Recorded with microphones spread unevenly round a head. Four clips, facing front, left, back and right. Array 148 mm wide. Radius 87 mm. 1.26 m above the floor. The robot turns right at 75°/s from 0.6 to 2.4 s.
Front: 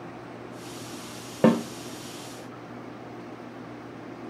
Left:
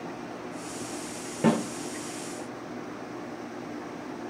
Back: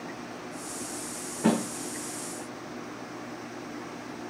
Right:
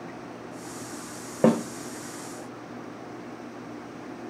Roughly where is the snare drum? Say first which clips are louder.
Right 3 dB, front 5 dB; ahead right.